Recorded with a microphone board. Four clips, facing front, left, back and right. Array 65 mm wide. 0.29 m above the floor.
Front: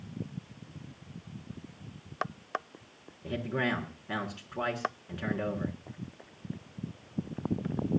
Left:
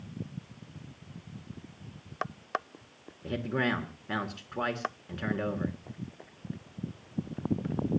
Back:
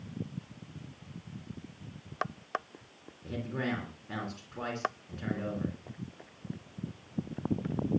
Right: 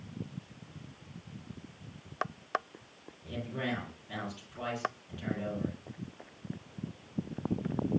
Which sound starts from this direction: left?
A man speaking, at 3.2 s.